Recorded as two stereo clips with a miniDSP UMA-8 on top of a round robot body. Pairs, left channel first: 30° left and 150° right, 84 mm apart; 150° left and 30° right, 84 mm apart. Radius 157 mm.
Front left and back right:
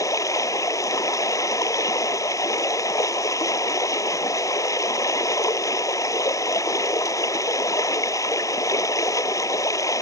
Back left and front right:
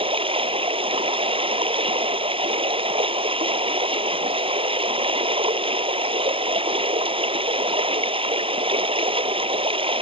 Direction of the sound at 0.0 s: 20° right.